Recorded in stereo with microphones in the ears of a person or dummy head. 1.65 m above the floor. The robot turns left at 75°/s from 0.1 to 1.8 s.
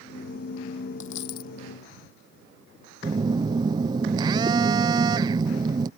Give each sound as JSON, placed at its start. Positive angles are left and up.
{"t": 1.0, "sound": "a dropped coin", "azimuth_deg": 90}
{"t": 3.0, "sound": "a phone buzzing", "side_deg": -25}